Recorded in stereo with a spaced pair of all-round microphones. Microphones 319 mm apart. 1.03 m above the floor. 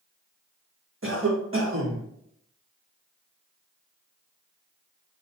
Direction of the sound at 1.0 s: 45° right (ahead or behind).